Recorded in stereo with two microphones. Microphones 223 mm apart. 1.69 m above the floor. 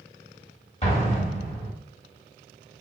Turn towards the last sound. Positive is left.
turn(degrees=30)  # may be behind; listen again after turning